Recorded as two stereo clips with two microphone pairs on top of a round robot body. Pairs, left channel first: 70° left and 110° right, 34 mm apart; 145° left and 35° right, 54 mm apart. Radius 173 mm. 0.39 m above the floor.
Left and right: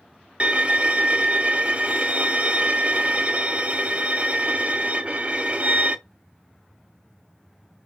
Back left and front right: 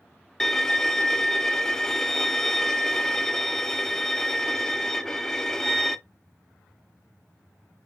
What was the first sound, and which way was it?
A violin, 140° right.